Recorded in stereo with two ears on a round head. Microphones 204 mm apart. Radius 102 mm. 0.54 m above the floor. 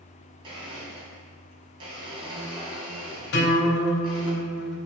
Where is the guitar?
55° left (ahead or behind), 3.5 m.